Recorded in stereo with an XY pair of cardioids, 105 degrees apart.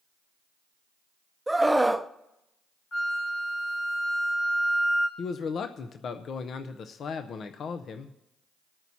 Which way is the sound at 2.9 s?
45° left.